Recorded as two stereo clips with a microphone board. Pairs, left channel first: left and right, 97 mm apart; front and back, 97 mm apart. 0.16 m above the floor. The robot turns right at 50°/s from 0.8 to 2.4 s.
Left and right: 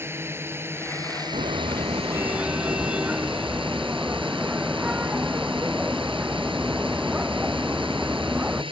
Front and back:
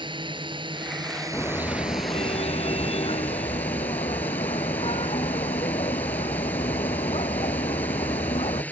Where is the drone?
155° right; by 8.7 s 75° right.